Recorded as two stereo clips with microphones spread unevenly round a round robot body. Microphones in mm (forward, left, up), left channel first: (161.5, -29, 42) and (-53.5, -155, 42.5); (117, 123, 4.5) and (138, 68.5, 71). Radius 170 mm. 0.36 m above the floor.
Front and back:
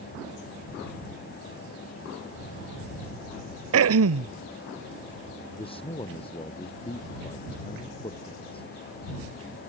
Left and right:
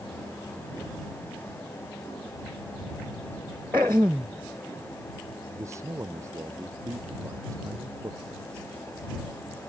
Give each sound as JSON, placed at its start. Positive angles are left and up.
{"t": 3.7, "sound": "throat clearing", "azimuth_deg": -125}
{"t": 5.5, "sound": "a man speaking", "azimuth_deg": -40}